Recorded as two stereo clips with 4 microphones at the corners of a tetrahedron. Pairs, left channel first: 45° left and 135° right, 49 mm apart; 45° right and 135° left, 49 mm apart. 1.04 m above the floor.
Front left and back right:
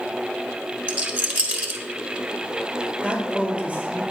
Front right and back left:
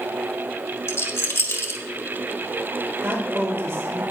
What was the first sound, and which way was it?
A rattle, 80° right.